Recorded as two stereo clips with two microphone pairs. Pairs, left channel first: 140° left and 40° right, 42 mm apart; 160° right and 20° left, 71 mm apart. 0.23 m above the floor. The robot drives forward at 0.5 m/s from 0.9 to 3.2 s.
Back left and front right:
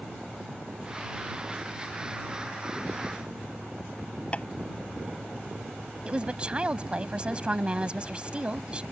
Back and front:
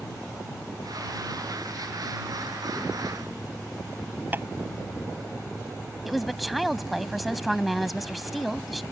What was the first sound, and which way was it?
Tapping, 80° left.